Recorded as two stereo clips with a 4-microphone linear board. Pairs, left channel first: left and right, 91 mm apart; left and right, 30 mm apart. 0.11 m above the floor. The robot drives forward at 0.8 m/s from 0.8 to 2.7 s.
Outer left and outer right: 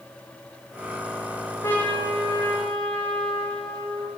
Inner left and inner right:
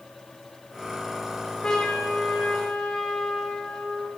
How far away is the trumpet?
About 3 m.